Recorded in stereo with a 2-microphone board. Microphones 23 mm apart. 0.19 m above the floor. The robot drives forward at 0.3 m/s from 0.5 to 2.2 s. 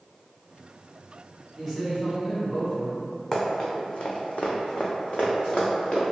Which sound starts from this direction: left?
Running footsteps, at 3.3 s.